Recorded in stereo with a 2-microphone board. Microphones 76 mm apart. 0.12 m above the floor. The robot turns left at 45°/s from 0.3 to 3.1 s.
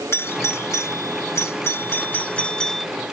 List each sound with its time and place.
0.1 s a doorbell: 30° left (ahead or behind); by 2.9 s 5° left (ahead or behind)